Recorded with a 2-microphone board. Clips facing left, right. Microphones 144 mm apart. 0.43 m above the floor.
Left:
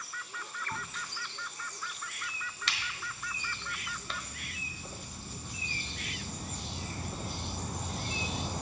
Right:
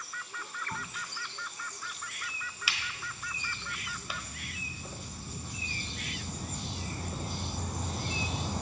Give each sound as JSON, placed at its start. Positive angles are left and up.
{"t": 0.7, "sound": "a crack", "side_deg": -5, "distance_m": 1.2}